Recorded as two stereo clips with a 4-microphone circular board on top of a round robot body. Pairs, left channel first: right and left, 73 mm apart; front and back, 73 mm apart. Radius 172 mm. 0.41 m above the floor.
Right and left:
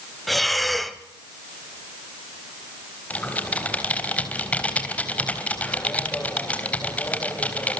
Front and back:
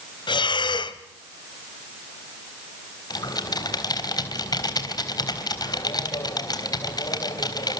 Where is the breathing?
Straight ahead, 0.9 m.